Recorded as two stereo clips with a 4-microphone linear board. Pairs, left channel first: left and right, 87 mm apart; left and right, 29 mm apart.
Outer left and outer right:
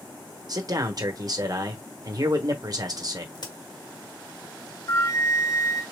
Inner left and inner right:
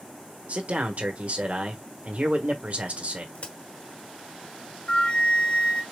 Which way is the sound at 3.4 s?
55° left (ahead or behind).